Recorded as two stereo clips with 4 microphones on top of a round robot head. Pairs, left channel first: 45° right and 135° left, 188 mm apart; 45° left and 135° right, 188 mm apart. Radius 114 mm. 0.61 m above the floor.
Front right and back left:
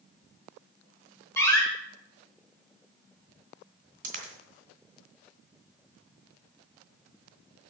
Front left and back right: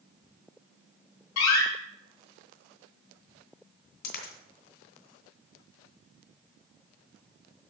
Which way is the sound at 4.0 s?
85° left.